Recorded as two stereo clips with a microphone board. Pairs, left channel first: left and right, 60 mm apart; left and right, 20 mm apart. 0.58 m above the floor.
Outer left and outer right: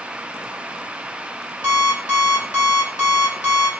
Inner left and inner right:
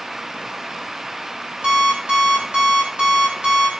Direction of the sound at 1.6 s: 75° right (ahead or behind).